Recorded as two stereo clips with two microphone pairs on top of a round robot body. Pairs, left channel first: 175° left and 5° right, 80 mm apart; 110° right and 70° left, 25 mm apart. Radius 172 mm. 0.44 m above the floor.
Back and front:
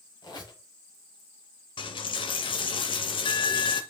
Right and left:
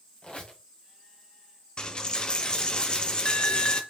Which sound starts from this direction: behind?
A dropped coin, at 1.8 s.